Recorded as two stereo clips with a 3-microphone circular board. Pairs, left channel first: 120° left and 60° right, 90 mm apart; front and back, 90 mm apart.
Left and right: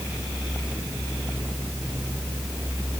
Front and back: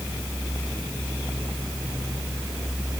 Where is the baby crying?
No baby crying in this recording.